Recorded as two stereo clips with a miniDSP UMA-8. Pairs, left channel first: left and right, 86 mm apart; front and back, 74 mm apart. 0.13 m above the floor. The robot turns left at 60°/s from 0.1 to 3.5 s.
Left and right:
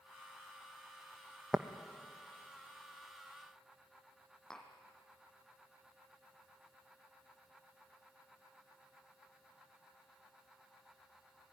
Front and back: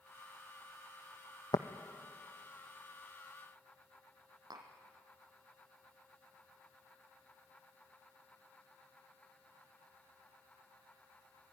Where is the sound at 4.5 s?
175° left, 2.5 m.